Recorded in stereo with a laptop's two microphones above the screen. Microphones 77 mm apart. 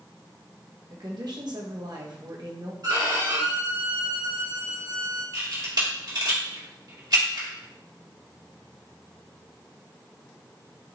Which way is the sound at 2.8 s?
60° right (ahead or behind).